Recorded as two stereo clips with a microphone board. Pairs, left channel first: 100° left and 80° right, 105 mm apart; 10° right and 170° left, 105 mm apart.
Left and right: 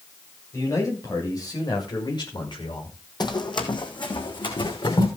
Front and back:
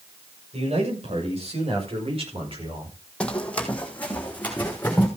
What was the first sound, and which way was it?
A man speaking, 160° left.